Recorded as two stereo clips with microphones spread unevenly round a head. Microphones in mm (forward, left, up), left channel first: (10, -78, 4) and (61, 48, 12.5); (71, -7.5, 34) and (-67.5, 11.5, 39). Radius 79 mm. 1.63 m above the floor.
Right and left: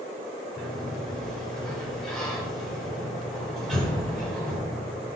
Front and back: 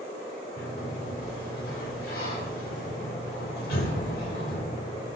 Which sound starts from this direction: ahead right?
A sliding door, at 0.6 s.